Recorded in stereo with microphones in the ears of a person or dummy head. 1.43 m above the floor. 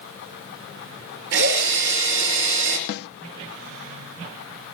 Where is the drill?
65° right (ahead or behind), 4.5 m.